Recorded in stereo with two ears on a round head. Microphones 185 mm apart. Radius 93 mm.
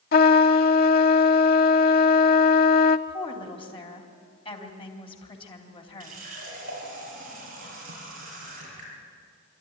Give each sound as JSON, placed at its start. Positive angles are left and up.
{"t": 0.1, "sound": "a trumpet", "side_deg": 45, "distance_m": 0.7}
{"t": 3.1, "sound": "a woman speaking", "side_deg": 30, "distance_m": 3.0}
{"t": 6.0, "sound": "a running tap", "side_deg": -45, "distance_m": 6.0}